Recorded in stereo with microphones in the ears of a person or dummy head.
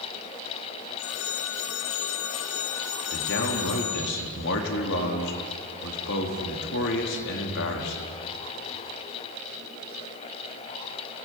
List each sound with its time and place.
1.0 s a phone ringing: 55° left (ahead or behind), 1.9 m
3.1 s a man speaking: 60° left (ahead or behind), 4 m